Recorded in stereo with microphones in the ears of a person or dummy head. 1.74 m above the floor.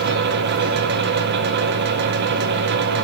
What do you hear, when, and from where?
0.0 s a fan: 55° right (ahead or behind), 1.2 m